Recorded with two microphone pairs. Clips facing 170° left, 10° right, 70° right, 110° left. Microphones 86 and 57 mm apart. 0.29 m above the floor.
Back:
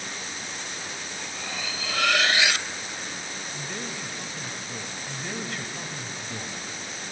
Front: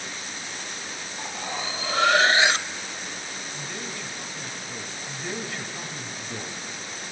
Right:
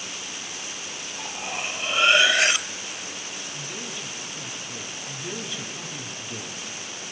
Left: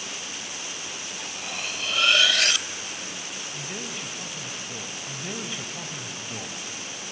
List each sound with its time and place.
1.2 s cutlery clinking: 30° right, 0.5 m
3.5 s a man speaking: 105° left, 1.2 m
5.1 s a man speaking: 75° left, 1.6 m